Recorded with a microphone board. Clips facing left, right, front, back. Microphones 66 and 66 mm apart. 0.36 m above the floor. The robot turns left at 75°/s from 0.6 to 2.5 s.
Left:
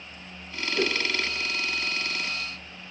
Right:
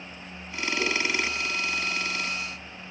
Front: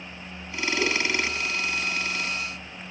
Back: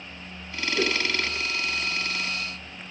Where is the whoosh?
130° left, 3 m; by 1.0 s 115° left, 3 m.